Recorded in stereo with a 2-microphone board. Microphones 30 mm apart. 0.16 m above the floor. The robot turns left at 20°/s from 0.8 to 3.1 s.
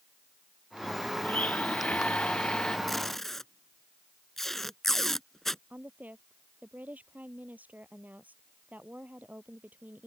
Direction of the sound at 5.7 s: 70° right (ahead or behind).